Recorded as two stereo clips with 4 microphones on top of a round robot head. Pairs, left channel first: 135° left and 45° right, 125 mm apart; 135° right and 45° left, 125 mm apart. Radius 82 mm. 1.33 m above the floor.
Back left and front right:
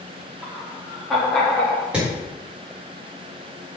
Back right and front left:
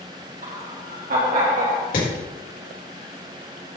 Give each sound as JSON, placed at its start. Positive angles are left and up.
{"t": 0.4, "sound": "laughter", "azimuth_deg": 35, "distance_m": 4.0}
{"t": 1.9, "sound": "hammering", "azimuth_deg": -130, "distance_m": 4.5}